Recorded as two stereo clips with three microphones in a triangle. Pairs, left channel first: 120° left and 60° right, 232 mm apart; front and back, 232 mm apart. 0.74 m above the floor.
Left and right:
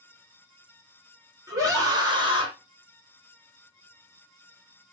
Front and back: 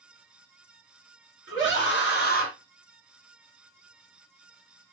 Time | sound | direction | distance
1.5 | a scream | 10° left | 1.3 m